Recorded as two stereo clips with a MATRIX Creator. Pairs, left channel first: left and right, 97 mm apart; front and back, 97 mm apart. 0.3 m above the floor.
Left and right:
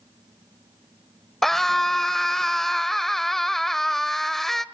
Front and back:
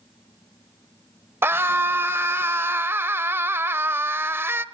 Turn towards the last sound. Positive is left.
turn(degrees=170)